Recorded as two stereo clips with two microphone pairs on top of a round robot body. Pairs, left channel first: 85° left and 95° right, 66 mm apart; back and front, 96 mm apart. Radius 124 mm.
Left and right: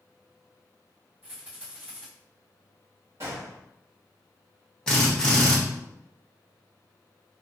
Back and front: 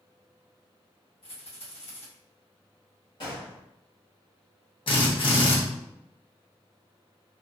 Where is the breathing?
No breathing in this recording.